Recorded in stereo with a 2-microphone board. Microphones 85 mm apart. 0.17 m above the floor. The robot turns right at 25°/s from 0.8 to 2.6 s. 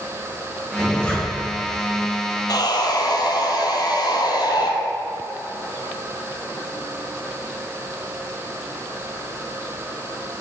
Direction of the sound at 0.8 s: 20° left (ahead or behind).